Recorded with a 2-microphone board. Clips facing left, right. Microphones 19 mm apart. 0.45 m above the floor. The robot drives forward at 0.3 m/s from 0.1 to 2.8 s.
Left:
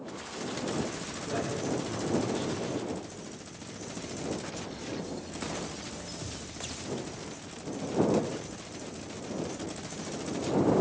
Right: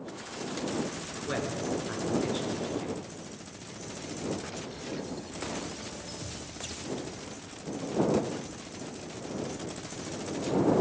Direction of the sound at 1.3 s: 45° right (ahead or behind).